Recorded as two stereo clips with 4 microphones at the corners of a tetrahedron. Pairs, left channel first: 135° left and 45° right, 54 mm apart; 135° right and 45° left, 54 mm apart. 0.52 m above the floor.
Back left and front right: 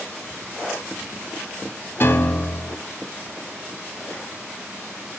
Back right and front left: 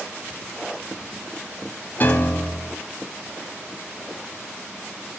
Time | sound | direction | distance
2.0 | a piano | 175° left | 0.9 m